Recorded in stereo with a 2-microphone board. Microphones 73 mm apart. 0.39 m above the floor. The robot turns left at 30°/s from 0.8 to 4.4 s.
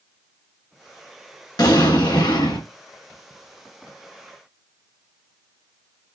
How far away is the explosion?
About 1.7 m.